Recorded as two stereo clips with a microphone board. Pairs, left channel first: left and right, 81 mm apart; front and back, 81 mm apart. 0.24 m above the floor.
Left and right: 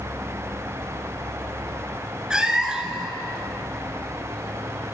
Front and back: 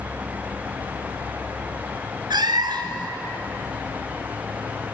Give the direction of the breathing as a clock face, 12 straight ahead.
I don't hear breathing.